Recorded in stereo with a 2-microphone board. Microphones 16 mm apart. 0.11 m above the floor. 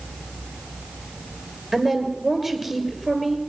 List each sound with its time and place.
1.7 s a woman speaking: 30° right (ahead or behind), 2 m